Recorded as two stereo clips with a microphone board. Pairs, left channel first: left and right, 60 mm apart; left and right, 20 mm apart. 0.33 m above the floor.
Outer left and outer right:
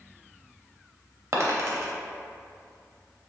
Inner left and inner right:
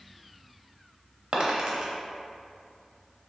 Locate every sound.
1.3 s a dropped coin: 45° right (ahead or behind), 0.5 m